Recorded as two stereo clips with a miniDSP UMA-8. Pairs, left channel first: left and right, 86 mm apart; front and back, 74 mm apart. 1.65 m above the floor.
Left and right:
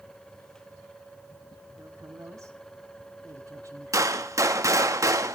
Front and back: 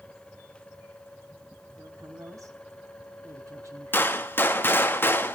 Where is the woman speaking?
140° right, 3.5 m.